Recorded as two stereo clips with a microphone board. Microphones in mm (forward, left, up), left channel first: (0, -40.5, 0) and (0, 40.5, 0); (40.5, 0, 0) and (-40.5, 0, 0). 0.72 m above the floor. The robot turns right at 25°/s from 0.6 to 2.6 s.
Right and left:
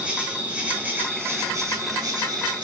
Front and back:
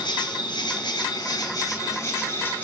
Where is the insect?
15° left, 0.9 m; by 2.6 s 65° left, 0.9 m.